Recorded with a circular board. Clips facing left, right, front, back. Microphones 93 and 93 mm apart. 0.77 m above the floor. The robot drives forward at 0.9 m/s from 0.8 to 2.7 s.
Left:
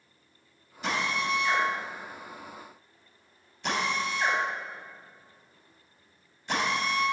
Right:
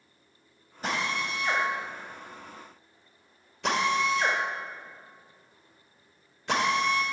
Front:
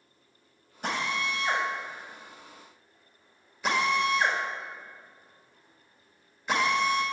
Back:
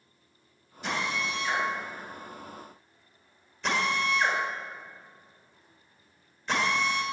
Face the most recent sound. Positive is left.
turn(degrees=-80)